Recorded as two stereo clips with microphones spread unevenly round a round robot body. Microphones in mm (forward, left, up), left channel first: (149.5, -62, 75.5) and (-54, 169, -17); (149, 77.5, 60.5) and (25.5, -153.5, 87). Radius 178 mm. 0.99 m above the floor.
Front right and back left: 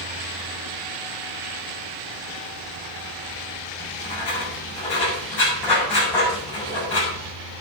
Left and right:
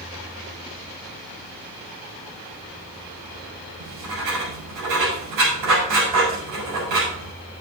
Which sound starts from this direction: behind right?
Writing, at 3.8 s.